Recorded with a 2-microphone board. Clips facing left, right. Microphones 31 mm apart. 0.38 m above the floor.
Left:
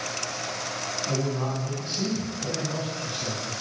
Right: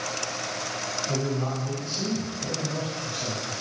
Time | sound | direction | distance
1.1 | a man speaking | 45° left (ahead or behind) | 2.5 m